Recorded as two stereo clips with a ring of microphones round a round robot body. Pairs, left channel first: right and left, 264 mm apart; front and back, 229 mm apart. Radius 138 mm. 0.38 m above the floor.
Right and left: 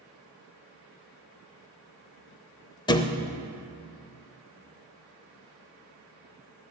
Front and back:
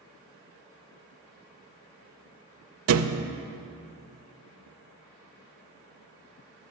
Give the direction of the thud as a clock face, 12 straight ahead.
5 o'clock.